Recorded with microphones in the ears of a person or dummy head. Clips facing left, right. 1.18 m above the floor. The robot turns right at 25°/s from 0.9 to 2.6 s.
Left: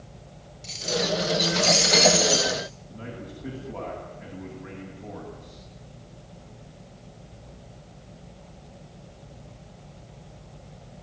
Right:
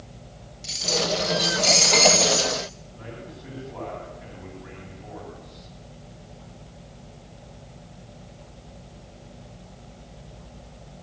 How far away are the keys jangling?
About 5.5 m.